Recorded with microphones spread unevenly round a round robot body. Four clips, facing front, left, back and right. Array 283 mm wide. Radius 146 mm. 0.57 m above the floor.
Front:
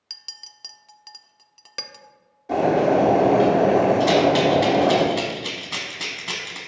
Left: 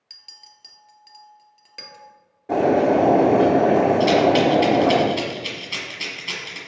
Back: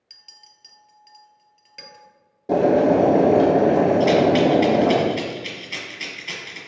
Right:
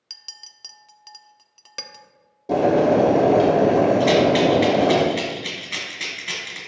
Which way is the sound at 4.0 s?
10° left.